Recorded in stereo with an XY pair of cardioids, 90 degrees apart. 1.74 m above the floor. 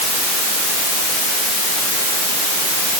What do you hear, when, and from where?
Only background noise.